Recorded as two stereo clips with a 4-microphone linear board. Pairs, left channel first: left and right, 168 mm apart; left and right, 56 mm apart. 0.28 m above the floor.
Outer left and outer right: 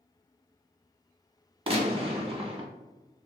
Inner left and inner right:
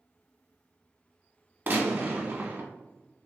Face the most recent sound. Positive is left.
turn(degrees=-35)  # may be behind; listen again after turning